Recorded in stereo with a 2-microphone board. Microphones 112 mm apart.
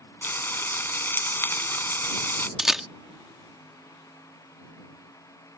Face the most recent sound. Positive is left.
turn(degrees=-5)  # may be behind; listen again after turning